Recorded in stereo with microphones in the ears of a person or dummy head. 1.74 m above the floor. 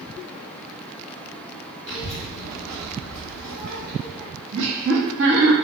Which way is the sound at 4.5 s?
75° right (ahead or behind).